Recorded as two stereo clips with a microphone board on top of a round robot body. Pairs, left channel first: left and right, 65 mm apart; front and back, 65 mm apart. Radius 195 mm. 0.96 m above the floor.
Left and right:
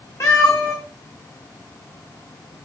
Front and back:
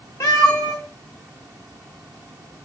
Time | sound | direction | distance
0.2 | a cat meowing | 55° left | 0.5 m